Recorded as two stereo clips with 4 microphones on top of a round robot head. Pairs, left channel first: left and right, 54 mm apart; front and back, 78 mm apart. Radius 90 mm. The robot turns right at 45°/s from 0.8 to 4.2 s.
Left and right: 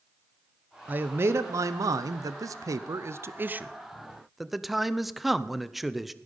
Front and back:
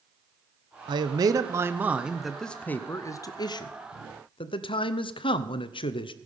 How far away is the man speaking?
About 0.7 m.